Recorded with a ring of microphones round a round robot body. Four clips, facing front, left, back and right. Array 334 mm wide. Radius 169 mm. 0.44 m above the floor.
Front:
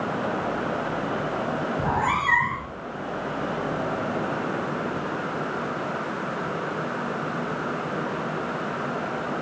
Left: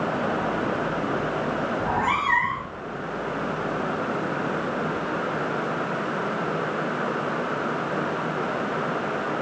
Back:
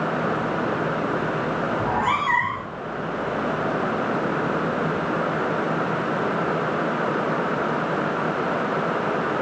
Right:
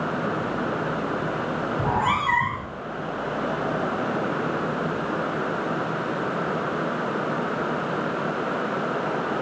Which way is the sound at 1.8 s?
70° right.